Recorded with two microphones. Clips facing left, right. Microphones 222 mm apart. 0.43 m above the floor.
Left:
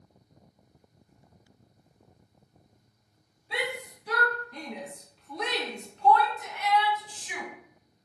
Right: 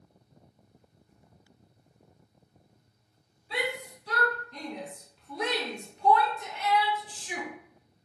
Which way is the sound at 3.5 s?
15° left (ahead or behind).